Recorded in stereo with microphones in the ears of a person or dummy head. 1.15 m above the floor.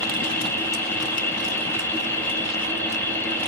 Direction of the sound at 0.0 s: 10° left (ahead or behind).